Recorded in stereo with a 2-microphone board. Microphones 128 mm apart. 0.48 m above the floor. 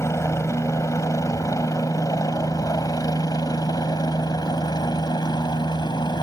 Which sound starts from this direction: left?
A helicopter, at 0.0 s.